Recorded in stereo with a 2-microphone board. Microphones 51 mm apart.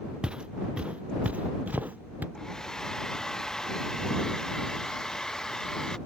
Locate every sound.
0.2 s footsteps: 20° right (ahead or behind); by 2.2 s 40° right (ahead or behind)
2.4 s a hair dryer: 10° left (ahead or behind)